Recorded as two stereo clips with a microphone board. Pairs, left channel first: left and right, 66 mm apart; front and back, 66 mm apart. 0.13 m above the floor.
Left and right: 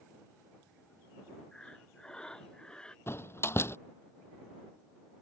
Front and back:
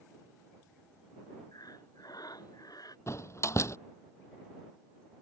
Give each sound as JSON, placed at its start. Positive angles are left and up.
{"t": 1.5, "sound": "breathing", "azimuth_deg": 10}
{"t": 3.1, "sound": "a door slam", "azimuth_deg": 40}